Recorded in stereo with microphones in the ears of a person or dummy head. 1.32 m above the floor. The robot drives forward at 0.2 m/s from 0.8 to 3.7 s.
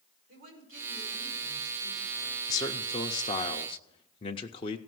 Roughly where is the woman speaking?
Right.